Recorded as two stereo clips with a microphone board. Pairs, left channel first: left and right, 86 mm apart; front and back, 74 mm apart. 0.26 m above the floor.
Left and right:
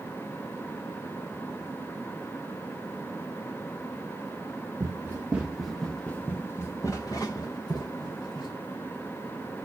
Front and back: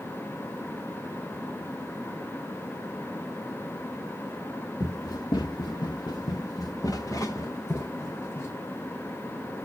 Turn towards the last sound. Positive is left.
turn(degrees=60)